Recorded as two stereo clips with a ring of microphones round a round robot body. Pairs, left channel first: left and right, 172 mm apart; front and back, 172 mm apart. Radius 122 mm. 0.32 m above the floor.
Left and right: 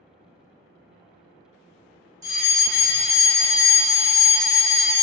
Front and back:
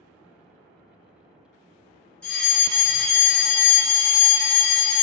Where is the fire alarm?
75° right, 1.8 m.